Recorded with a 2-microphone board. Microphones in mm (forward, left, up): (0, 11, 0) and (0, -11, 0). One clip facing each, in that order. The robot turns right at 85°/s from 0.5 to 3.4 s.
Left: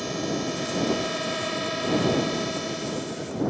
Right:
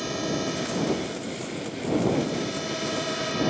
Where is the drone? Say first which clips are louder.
Even; 5° right; by 3.5 s 115° right.